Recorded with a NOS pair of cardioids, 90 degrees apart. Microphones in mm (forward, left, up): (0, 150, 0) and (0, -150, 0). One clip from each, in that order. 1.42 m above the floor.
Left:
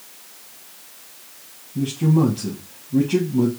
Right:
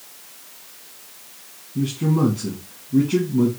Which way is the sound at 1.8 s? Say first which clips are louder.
Left 2 dB; 10° left.